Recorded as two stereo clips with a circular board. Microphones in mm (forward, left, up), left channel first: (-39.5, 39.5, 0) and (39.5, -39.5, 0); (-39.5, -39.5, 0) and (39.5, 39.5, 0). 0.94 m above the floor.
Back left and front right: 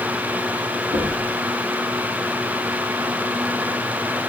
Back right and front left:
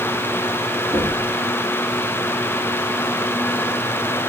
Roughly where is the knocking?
Ahead right.